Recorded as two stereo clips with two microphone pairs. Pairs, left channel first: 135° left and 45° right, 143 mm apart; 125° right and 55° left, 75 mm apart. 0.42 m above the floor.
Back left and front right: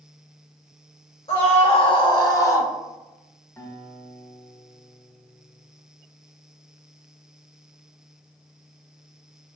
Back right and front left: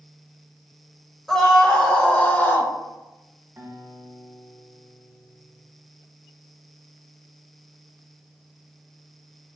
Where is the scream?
150° left, 1.3 m; by 2.7 s 160° right, 1.0 m.